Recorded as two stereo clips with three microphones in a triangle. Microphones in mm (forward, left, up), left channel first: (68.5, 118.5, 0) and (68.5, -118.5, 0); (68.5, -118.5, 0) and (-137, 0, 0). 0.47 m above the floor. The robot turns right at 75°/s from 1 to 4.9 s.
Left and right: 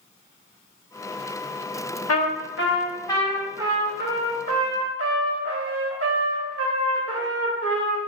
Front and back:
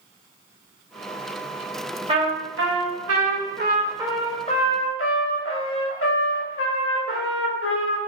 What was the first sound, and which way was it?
A trumpet, 85° left.